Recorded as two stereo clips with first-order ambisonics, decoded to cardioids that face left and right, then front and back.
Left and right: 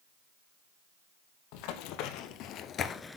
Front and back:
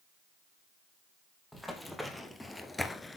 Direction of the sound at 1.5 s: 85° left.